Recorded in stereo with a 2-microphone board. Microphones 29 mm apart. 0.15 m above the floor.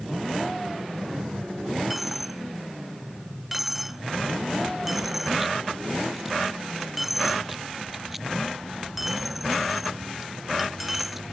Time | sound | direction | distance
1.9 | a dropped coin | 10° right (ahead or behind) | ?